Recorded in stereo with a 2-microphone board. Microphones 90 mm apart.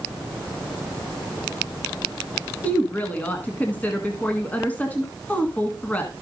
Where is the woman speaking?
15° left (ahead or behind), 1.4 m.